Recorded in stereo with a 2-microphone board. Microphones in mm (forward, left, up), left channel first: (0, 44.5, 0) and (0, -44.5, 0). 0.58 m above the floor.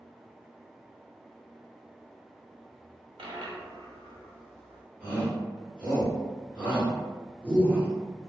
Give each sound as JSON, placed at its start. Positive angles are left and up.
{"t": 3.2, "sound": "a dropped coin", "side_deg": -70, "distance_m": 0.6}
{"t": 5.0, "sound": "a shout", "side_deg": -15, "distance_m": 1.4}